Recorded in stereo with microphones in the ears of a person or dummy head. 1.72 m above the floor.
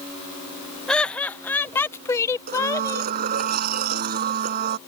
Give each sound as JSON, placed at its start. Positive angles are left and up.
{"t": 0.9, "sound": "laughter", "side_deg": 0}
{"t": 2.5, "sound": "a blender", "side_deg": -40}